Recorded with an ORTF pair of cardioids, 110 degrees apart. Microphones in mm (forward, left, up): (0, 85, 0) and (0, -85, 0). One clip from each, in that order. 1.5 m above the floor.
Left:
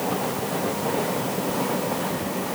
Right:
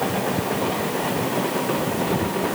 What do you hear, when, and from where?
Only background noise.